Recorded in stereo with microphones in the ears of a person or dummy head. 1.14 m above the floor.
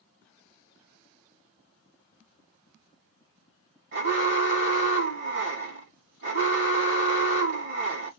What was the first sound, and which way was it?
An alarm, 55° right (ahead or behind).